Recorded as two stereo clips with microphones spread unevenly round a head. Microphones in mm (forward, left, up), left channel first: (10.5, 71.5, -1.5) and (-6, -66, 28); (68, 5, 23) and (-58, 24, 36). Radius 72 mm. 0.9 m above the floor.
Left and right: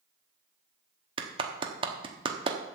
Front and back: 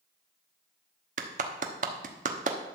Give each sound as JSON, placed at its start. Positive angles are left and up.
{"t": 1.2, "sound": "a clap", "azimuth_deg": -155, "distance_m": 1.0}